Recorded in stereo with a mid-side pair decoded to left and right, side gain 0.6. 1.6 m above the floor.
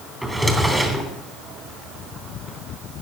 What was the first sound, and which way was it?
A drawer, 10° right.